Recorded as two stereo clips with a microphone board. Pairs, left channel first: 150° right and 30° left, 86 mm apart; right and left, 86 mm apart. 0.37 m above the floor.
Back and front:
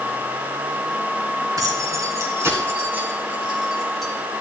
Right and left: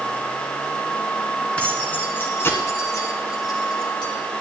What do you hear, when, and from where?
1.6 s keys jangling: 15° right, 2.5 m; by 4.1 s 65° right, 2 m